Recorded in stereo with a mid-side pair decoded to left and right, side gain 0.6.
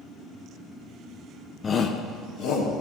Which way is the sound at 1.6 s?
30° left.